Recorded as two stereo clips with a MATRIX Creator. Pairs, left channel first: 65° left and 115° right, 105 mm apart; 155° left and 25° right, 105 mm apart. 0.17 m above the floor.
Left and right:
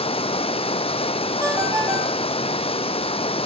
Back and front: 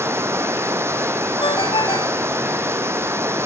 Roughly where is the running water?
Ahead left.